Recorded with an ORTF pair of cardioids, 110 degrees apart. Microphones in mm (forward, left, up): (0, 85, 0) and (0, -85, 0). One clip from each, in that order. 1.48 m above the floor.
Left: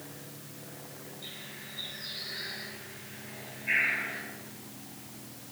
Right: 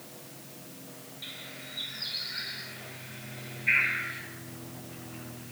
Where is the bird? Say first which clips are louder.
Right 3 dB; 70° right, 7 m.